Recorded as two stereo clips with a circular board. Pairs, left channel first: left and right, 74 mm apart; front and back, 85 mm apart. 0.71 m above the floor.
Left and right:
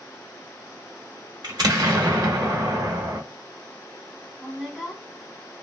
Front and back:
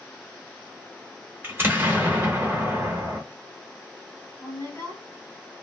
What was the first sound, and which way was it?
An explosion, 115° right.